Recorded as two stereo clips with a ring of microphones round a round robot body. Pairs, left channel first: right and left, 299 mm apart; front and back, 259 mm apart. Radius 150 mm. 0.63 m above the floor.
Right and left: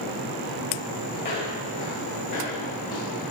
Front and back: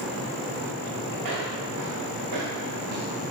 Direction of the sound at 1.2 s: 150° right.